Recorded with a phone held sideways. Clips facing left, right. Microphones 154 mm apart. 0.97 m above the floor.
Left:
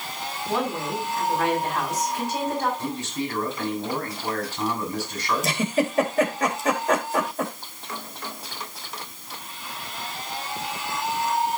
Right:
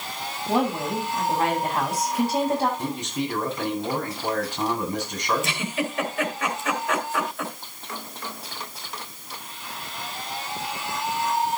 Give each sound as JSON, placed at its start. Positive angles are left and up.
{"t": 0.5, "sound": "a woman speaking", "side_deg": -35, "distance_m": 7.5}
{"t": 2.8, "sound": "a man speaking", "side_deg": -20, "distance_m": 6.5}
{"t": 5.4, "sound": "a giggle", "side_deg": 40, "distance_m": 2.5}